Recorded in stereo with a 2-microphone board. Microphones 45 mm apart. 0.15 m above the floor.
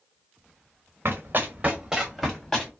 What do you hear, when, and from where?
1.1 s running footsteps: 55° right (ahead or behind), 1.1 m; by 2.7 s 15° left (ahead or behind), 1.3 m